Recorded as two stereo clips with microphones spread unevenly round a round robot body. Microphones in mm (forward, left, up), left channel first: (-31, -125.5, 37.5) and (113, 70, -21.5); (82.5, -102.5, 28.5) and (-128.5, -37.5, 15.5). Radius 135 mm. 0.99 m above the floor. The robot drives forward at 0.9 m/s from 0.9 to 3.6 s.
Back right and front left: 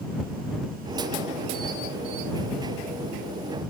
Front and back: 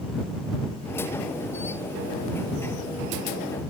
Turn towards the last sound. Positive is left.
turn(degrees=170)